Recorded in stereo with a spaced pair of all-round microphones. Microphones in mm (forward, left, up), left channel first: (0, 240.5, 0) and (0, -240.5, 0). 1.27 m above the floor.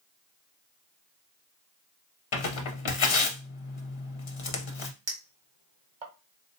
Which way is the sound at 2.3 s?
75° left (ahead or behind).